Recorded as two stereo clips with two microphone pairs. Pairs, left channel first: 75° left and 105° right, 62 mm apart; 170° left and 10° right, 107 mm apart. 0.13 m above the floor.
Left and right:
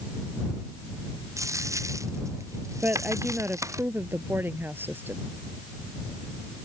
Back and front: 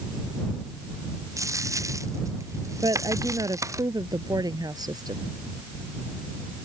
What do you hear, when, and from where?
1.4 s a dropped coin: 70° right
2.8 s a woman speaking: 55° right